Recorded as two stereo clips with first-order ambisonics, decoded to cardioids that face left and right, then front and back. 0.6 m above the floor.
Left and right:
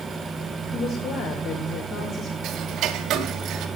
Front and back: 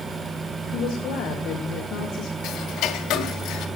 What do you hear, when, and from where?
0.7 s a woman speaking: 45° left, 3.5 m; by 2.3 s 35° left, 2 m
2.4 s ticking: 45° right, 1.9 m